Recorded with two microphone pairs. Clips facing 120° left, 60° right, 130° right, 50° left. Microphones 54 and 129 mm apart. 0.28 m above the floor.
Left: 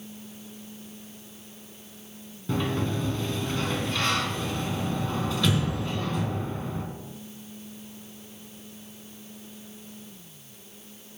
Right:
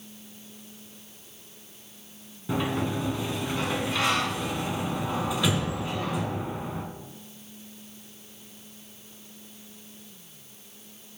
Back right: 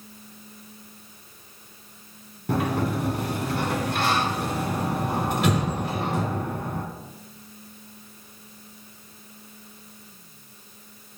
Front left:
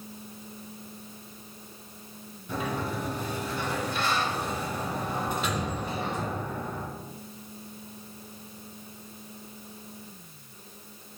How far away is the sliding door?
About 1.1 m.